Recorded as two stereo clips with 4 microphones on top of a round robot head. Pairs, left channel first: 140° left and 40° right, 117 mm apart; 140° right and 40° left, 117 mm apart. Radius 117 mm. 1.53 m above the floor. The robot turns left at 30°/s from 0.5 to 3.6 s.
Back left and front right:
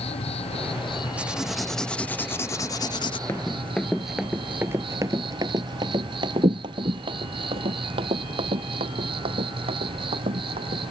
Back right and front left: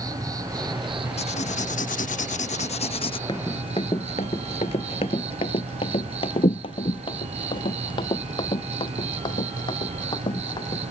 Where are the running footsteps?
165° right; by 10.8 s 85° right.